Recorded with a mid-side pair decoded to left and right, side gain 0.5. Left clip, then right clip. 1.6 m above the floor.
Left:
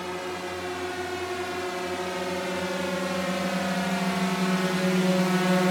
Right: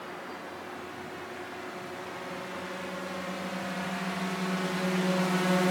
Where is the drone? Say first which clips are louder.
Left 8 dB; 70° left; by 5.7 s 20° left.